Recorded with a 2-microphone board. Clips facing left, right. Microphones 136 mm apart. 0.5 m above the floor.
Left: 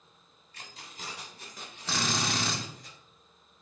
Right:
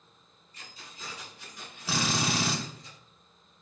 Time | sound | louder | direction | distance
0.5 | keys jangling | left 2 dB | 70° left (ahead or behind) | 2 m
1.9 | a drill | right 2 dB | 5° right (ahead or behind) | 1.4 m